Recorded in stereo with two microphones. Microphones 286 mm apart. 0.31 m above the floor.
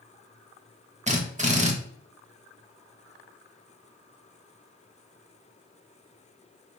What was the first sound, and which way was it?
A drill, 25° right (ahead or behind).